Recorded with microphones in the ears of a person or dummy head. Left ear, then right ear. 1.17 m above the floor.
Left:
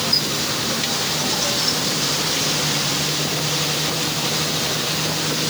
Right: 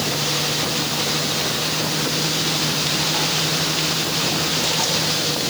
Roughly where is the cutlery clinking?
I don't hear cutlery clinking.